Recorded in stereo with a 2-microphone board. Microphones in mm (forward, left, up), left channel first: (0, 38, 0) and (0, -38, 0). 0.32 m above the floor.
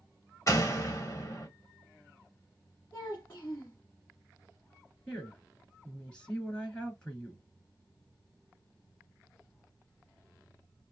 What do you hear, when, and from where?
0.5 s a door slam: 40° left (ahead or behind), 1.1 m
2.9 s a child speaking: 30° left (ahead or behind), 1.8 m
5.1 s a woman speaking: 15° left (ahead or behind), 3 m